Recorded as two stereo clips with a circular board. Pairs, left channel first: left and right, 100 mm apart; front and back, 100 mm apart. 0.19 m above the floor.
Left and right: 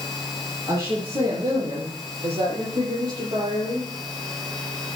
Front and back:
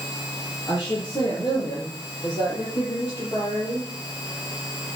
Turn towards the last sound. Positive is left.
turn(degrees=-55)